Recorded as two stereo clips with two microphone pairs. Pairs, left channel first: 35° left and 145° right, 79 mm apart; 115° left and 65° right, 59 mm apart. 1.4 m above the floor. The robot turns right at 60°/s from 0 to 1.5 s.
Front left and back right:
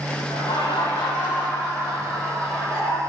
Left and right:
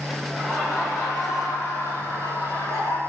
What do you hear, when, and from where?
0.3 s laughter: 40° left, 5 m; by 3.0 s 110° left, 5 m